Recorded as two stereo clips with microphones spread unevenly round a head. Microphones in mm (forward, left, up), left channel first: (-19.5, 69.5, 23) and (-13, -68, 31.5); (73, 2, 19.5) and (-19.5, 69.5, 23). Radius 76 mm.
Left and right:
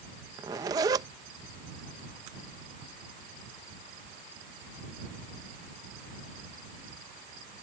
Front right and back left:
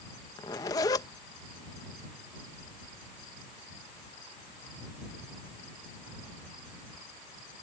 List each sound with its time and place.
0.4 s a zipper: 65° right